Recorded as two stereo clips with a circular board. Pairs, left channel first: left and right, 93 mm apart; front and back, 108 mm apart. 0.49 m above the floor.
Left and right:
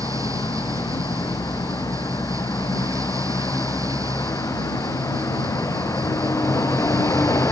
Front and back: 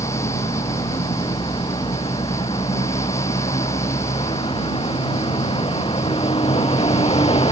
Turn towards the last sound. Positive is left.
turn(degrees=30)